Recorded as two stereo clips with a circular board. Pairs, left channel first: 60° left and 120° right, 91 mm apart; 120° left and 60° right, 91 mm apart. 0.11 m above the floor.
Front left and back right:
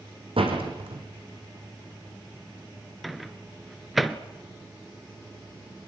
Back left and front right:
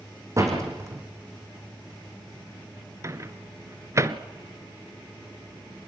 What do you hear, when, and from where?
0.4 s a door slam: 115° right, 4.5 m
3.0 s a microwave: 30° right, 1.1 m